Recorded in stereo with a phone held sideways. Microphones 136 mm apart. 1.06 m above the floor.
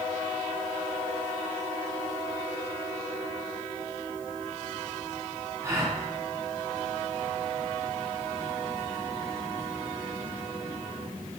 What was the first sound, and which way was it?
A gasp, 20° right (ahead or behind).